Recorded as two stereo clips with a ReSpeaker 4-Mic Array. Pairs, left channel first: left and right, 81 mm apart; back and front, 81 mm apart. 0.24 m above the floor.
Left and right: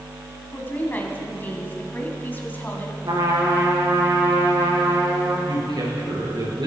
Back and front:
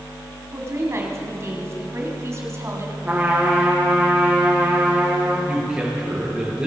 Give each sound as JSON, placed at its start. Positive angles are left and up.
{"t": 0.5, "sound": "a woman speaking", "azimuth_deg": 35, "distance_m": 2.0}
{"t": 3.0, "sound": "a trumpet", "azimuth_deg": -70, "distance_m": 4.5}
{"t": 5.5, "sound": "a man speaking", "azimuth_deg": -80, "distance_m": 4.5}